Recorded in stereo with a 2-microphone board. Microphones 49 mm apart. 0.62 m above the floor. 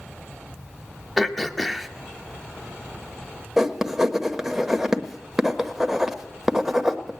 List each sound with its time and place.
1.2 s throat clearing: centre (ahead or behind), 0.6 m
3.6 s writing: 10° right (ahead or behind), 1.0 m